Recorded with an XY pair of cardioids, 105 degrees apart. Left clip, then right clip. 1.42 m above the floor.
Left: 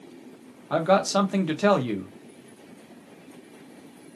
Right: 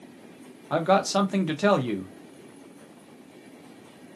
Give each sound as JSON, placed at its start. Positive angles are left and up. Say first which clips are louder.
{"t": 0.7, "sound": "a man speaking", "louder": "left 1 dB", "azimuth_deg": 0, "distance_m": 0.8}